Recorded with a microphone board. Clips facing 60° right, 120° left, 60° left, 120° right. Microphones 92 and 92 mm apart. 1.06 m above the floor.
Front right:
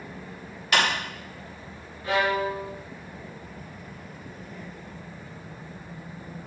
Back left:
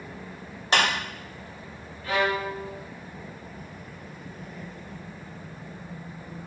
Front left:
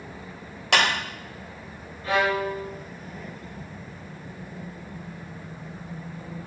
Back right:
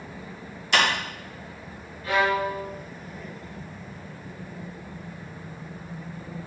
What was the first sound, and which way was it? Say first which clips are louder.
A clap: even, front left 1 dB; 60° left.